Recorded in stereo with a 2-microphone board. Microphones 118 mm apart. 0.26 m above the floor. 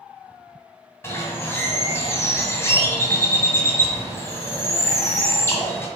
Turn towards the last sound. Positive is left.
turn(degrees=20)  # may be behind; listen again after turning